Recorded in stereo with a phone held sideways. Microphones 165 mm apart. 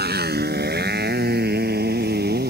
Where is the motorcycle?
80° right; by 2.5 s 75° right (ahead or behind).